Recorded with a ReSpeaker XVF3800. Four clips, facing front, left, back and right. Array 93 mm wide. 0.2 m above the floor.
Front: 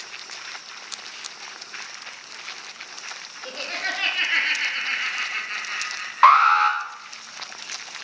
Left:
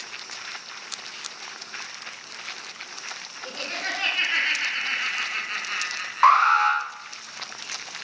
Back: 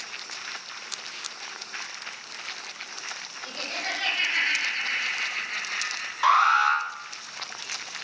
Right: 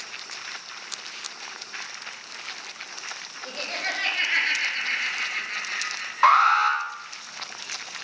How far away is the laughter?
About 2.5 m.